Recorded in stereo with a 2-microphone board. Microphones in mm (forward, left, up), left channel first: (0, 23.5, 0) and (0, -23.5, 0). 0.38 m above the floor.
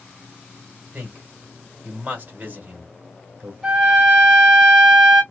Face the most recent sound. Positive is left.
turn(degrees=-10)  # may be behind; listen again after turning